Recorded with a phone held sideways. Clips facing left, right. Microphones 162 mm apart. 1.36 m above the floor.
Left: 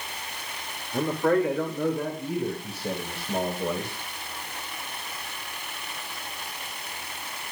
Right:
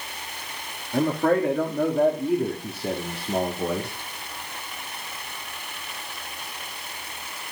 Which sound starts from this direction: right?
A man speaking, at 0.9 s.